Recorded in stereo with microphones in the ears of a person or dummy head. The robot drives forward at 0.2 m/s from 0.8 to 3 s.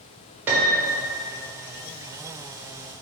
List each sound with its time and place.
0.5 s a piano: 10° right (ahead or behind), 0.6 m